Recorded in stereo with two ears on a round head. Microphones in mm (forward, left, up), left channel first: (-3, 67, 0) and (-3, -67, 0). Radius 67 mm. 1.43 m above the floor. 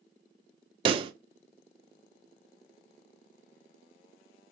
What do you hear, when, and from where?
0.8 s a pop: 35° right (ahead or behind), 0.5 m